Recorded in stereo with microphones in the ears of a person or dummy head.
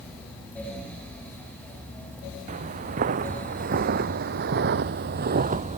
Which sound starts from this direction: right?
Footsteps, at 2.5 s.